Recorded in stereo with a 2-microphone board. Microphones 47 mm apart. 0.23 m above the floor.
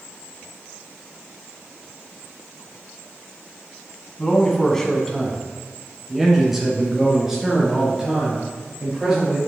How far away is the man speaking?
About 1.3 m.